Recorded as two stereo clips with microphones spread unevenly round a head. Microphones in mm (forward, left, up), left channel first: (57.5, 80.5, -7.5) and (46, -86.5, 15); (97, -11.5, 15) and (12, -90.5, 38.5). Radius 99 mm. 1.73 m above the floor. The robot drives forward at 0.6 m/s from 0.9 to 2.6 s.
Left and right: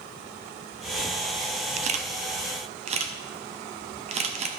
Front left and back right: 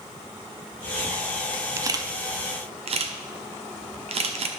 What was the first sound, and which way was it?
A camera shutter, 95° right.